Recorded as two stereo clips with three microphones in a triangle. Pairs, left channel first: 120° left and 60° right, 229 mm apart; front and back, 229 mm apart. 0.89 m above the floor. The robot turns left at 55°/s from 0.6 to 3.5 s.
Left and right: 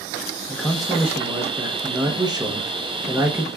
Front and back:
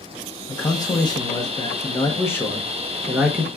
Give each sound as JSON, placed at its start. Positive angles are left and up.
{"t": 0.5, "sound": "a man speaking", "azimuth_deg": 35, "distance_m": 0.7}